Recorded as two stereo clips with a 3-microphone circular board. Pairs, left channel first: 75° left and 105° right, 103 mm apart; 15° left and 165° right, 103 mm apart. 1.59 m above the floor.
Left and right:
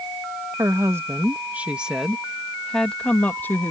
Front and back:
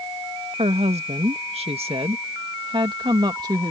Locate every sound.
0.6 s a woman speaking: 165° right; by 3.7 s 145° left